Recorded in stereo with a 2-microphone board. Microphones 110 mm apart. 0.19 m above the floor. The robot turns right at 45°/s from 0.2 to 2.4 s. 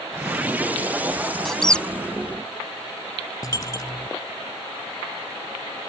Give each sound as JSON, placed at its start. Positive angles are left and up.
{"t": 1.4, "sound": "a squeak", "side_deg": 5}
{"t": 3.4, "sound": "a dropped coin", "side_deg": 30}